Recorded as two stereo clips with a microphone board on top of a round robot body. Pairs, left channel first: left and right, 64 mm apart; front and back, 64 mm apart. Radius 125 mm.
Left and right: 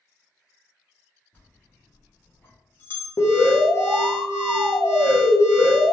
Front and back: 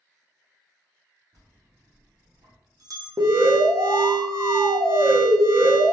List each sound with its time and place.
1.3 s a bell: 150° left, 0.8 m
3.2 s an alarm: 140° left, 0.5 m